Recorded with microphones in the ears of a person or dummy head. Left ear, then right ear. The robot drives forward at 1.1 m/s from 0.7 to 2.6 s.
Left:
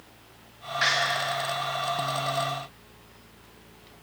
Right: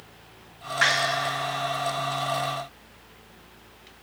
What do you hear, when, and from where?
0.8 s a door slam: 25° right (ahead or behind), 1.0 m; by 1.0 s 20° right (ahead or behind), 1.2 m